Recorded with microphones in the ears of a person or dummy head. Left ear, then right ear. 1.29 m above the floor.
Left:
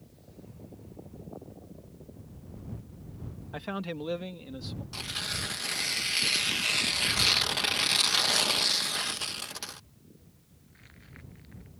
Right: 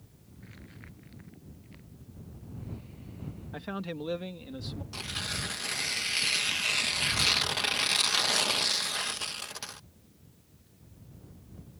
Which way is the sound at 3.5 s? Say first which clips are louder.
Left 2 dB; 25° left (ahead or behind).